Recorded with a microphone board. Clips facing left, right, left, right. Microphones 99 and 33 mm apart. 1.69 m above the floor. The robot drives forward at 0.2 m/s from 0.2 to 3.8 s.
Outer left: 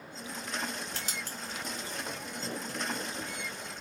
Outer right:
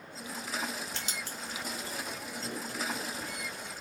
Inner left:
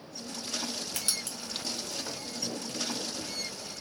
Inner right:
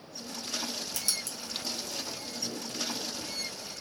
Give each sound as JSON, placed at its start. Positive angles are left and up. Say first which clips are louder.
{"t": 0.9, "sound": "writing", "louder": "even, even", "side_deg": 45, "distance_m": 1.0}